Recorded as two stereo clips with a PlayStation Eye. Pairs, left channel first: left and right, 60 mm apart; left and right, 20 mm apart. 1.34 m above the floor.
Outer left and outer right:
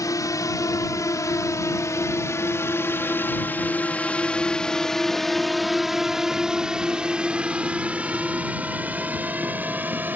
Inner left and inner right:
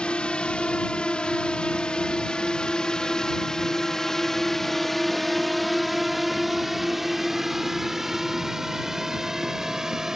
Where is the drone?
80° left; by 10.2 s 30° right (ahead or behind).